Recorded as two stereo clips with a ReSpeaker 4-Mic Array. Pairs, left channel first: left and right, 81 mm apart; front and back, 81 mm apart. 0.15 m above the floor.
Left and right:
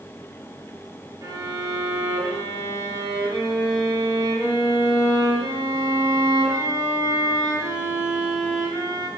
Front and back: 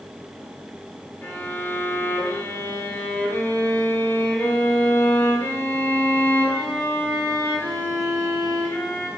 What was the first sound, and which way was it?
A violin, 60° right.